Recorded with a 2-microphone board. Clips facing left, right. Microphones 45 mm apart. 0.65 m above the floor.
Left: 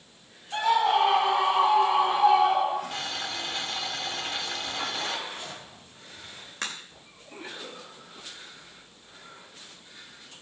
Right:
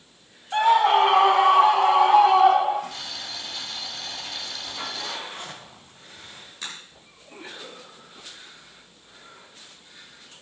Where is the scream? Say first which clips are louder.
Right 5 dB; 35° right (ahead or behind), 0.9 m; by 2.8 s 65° right (ahead or behind), 2.5 m.